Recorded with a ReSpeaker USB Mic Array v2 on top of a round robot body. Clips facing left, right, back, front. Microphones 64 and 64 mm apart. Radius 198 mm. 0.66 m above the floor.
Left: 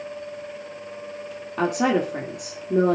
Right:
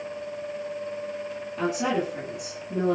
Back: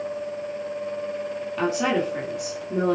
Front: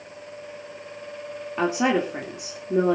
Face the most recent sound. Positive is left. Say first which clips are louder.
# left 5 dB, front 1 dB
turn(degrees=65)